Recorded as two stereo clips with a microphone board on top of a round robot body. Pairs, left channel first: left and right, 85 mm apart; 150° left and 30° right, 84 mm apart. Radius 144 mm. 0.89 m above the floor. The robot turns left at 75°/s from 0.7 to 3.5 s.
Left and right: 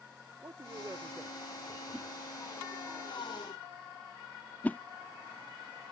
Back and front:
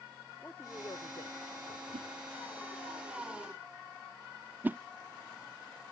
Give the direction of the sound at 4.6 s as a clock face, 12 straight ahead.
11 o'clock.